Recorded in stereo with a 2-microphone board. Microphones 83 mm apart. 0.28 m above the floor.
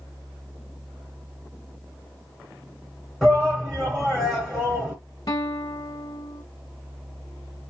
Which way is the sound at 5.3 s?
55° left (ahead or behind).